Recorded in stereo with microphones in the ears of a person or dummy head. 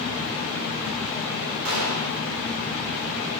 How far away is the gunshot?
About 7 m.